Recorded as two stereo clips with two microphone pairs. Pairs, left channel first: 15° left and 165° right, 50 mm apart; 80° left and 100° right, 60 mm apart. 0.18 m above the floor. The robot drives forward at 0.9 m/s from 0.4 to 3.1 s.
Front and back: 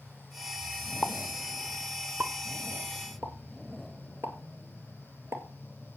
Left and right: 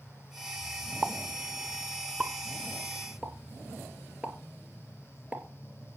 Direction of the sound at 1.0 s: 40° right.